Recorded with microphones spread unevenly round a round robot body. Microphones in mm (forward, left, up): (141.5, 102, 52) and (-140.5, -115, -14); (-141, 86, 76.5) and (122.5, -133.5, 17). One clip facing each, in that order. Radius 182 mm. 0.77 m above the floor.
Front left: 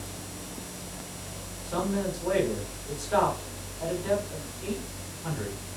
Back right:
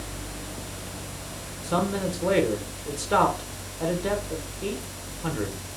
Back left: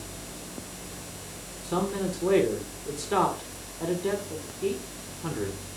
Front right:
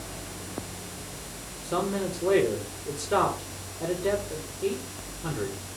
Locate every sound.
1.6 s a man speaking: 140° right, 2 m